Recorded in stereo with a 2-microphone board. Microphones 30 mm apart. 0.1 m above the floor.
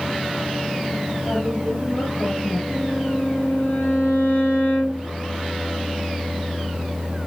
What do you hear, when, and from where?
1.2 s a woman speaking: 70° left (ahead or behind), 7 m
2.7 s a violin: 70° left (ahead or behind), 9 m